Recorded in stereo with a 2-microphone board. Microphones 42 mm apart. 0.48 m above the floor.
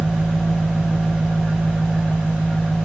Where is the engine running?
5° right (ahead or behind), 1.3 m.